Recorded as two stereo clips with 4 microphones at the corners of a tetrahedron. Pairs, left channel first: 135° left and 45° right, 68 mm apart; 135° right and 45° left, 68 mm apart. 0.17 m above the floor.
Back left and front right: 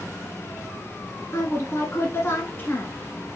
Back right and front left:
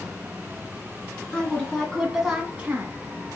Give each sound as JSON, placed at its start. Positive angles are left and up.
{"t": 1.3, "sound": "a woman speaking", "azimuth_deg": 160, "distance_m": 1.4}